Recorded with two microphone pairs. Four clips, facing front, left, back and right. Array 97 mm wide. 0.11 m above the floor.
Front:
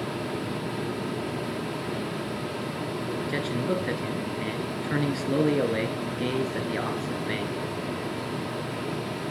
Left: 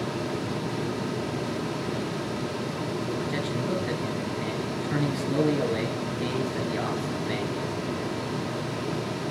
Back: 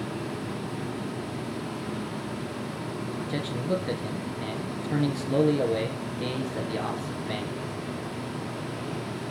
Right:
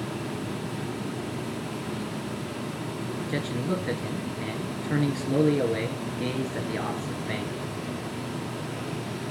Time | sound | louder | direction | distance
3.3 | a man speaking | left 1 dB, front 1 dB | 15° right | 2.0 m